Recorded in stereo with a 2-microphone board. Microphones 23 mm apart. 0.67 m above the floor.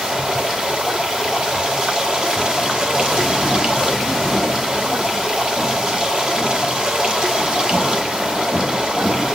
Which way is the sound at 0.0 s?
40° right (ahead or behind).